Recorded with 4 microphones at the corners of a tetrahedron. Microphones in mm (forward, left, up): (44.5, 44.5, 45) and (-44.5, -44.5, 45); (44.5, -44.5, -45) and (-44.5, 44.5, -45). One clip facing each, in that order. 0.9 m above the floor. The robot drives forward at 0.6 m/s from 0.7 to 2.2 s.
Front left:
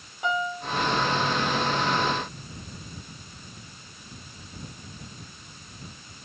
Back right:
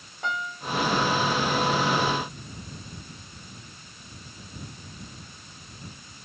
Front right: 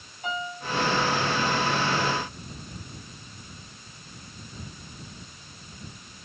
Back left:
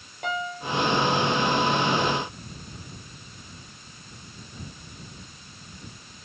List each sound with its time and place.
0.2 s a piano: 130° left, 3 m